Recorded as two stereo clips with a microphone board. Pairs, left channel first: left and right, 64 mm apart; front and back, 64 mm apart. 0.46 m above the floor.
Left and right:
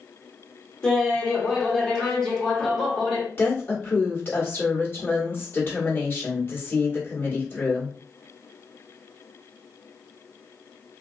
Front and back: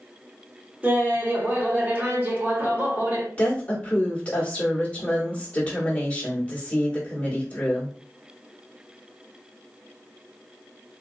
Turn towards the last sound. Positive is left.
turn(degrees=60)